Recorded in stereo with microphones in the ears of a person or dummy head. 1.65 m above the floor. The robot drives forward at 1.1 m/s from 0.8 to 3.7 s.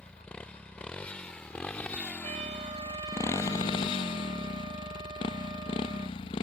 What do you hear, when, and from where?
0.0 s a motorcycle: 5° left (ahead or behind); by 6.4 s 15° left (ahead or behind)
2.2 s a trumpet: 35° right (ahead or behind); by 6.2 s 25° right (ahead or behind)